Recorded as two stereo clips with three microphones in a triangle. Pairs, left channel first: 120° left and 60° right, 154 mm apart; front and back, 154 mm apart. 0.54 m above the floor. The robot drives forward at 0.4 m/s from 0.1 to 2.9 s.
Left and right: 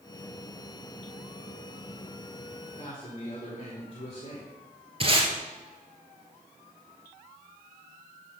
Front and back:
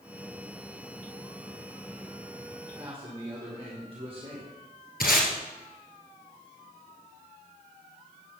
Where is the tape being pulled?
10° right, 1.7 m.